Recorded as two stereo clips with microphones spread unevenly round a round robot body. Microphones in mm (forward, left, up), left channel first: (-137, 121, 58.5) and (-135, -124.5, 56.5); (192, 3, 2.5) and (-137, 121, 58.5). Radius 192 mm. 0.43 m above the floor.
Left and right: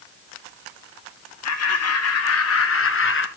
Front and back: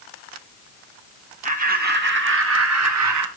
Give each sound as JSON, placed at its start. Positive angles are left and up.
{"t": 1.4, "sound": "laughter", "azimuth_deg": 90, "distance_m": 4.0}